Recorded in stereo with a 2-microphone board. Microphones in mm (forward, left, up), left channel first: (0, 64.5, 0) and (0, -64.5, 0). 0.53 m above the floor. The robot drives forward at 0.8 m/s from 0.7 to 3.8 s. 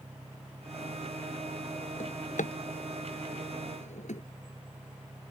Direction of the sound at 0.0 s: 85° right.